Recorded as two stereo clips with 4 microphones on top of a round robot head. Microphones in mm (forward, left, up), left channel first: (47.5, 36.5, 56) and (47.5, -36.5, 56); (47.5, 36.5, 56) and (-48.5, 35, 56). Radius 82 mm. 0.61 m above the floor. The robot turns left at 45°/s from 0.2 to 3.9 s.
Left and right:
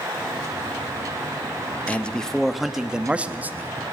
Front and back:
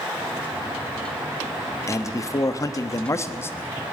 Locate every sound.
1.9 s a man speaking: 30° left, 0.7 m; by 3.8 s 55° right, 0.7 m